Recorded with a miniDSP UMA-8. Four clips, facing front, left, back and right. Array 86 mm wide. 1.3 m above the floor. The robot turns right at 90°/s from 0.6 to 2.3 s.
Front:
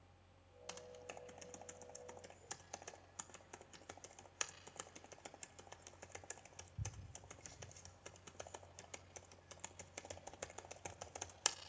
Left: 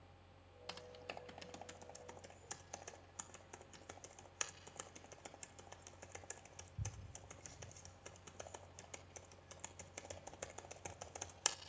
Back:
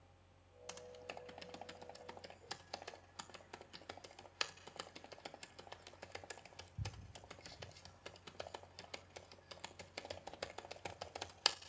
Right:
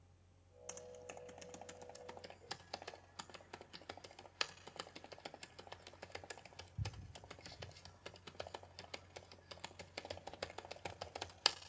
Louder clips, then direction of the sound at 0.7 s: Left 1 dB, back 2 dB; 85° left.